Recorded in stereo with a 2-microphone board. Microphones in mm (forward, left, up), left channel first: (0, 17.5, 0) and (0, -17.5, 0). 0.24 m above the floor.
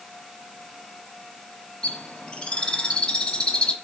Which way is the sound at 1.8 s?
30° left (ahead or behind).